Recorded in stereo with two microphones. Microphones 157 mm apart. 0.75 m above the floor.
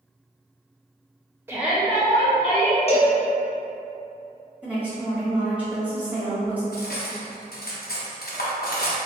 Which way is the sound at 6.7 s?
80° left.